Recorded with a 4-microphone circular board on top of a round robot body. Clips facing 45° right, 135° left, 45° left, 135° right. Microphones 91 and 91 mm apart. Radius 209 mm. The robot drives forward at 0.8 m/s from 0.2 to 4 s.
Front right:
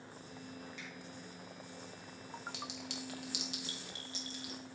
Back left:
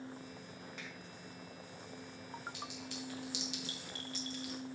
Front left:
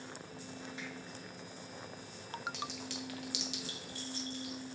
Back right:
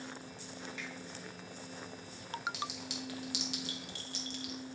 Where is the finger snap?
95° left, 4 m; by 0.9 s 100° left, 4 m.